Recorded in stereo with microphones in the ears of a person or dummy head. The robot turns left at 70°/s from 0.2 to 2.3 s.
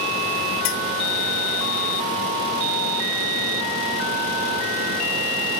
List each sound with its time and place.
0.7 s a clink: 65° left (ahead or behind); by 0.8 s 80° left